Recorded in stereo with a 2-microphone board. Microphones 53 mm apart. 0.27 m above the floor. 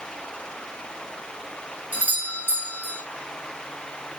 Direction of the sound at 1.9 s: 30° right (ahead or behind).